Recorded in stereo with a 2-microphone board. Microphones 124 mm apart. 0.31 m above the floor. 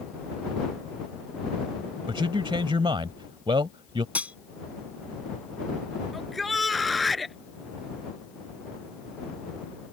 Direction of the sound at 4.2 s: 10° right (ahead or behind).